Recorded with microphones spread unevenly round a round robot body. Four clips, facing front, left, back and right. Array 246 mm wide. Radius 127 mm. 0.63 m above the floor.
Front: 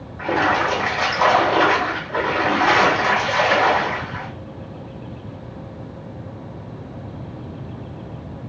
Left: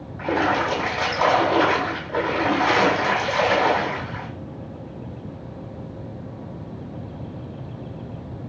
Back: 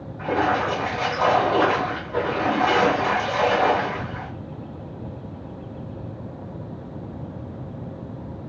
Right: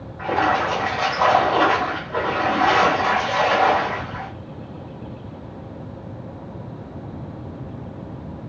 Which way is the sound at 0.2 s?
100° left.